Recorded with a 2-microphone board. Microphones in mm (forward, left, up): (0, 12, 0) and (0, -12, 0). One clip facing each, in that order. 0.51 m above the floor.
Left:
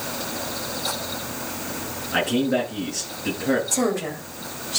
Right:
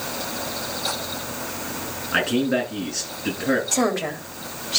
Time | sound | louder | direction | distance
2.1 | a man speaking | even | 20° right (ahead or behind) | 9.5 m
3.7 | a woman speaking | right 1 dB | 30° right (ahead or behind) | 2.5 m